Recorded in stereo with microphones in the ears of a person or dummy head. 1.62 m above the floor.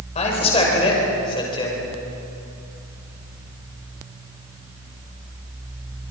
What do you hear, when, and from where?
0.1 s a man speaking: 35° left (ahead or behind), 6 m; by 1.8 s 25° left (ahead or behind), 6 m